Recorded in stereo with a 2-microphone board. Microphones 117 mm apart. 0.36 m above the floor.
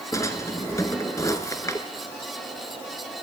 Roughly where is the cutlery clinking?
No cutlery clinking in this recording.